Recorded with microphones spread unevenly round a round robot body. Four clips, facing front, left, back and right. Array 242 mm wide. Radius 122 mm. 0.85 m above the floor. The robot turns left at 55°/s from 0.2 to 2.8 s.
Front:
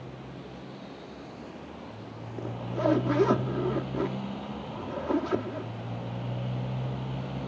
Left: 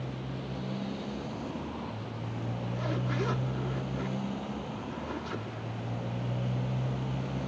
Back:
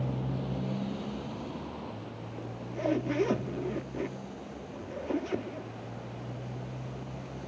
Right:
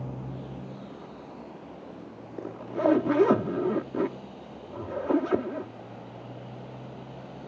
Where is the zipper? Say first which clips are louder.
Right 10 dB, front 5 dB; 50° right; by 5.7 s 75° right.